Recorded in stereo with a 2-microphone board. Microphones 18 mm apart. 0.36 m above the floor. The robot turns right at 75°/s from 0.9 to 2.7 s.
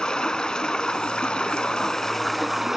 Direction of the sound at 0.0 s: 65° left.